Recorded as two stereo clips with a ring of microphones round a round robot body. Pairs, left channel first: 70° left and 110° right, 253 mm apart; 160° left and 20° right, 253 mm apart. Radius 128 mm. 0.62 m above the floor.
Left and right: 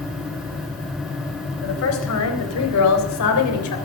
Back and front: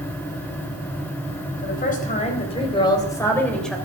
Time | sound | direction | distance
1.6 | a woman speaking | 100° left | 4 m